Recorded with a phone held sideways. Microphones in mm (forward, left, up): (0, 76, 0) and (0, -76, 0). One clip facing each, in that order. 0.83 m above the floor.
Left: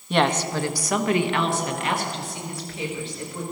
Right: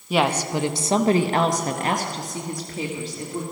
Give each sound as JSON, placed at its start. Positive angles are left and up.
{"t": 0.1, "sound": "a woman speaking", "side_deg": -5, "distance_m": 0.8}